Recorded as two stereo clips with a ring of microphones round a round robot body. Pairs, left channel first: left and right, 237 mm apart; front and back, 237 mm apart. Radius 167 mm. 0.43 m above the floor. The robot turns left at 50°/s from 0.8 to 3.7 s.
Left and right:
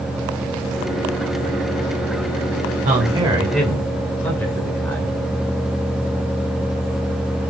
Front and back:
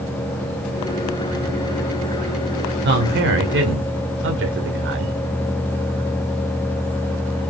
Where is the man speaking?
145° right, 1.9 m; by 5.2 s 170° left, 1.9 m.